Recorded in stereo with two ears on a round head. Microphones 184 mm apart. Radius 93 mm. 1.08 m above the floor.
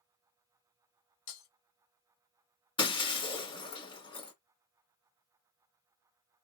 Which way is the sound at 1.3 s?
65° left (ahead or behind).